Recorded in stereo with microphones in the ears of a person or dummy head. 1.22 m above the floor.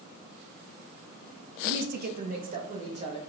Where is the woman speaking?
70° right (ahead or behind), 0.8 m; by 3.2 s 35° right (ahead or behind), 1.5 m.